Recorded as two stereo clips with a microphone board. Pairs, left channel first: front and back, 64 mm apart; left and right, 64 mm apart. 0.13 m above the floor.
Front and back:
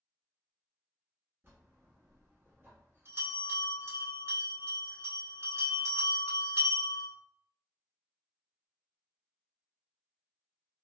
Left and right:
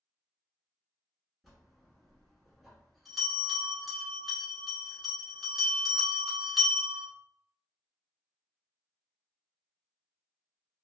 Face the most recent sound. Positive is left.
turn(degrees=180)